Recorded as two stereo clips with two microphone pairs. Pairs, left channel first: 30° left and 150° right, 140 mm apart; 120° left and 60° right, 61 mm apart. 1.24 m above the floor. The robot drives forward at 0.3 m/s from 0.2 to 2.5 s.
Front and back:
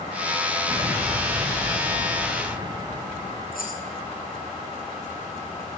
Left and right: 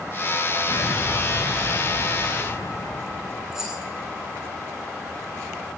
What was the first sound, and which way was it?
An explosion, 145° left.